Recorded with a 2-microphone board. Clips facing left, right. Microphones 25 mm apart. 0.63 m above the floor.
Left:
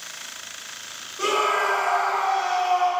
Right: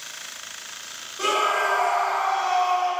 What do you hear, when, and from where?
1.2 s a scream: 15° left (ahead or behind), 2.5 m; by 2.9 s 40° left (ahead or behind), 2 m